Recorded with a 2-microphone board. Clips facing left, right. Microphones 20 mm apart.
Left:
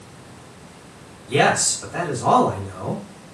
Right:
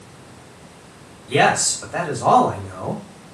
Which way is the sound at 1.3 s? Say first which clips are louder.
Right 1 dB; 30° right (ahead or behind).